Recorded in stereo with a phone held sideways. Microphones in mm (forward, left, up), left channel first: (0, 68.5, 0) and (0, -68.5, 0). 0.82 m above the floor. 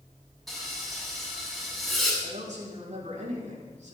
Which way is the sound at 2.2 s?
60° right (ahead or behind).